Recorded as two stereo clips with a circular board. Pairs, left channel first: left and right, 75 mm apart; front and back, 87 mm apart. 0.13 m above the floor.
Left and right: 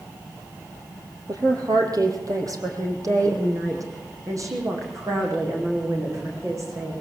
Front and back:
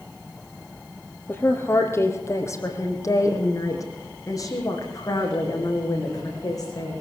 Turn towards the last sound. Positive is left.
turn(degrees=-45)